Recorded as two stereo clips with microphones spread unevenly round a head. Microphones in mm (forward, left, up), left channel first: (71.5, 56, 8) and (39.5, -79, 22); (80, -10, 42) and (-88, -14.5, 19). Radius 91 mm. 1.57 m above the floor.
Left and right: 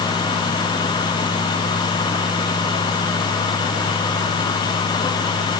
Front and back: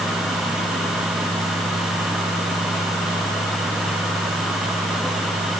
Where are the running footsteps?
No running footsteps in this recording.